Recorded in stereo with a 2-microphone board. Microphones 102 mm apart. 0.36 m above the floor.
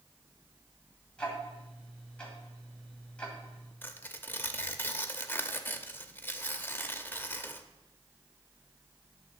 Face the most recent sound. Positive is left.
turn(degrees=20)  # may be behind; listen again after turning